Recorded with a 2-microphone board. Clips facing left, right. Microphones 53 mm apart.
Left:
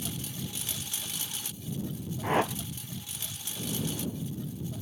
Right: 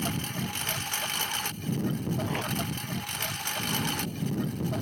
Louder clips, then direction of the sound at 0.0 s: Right 6 dB; 55° right (ahead or behind).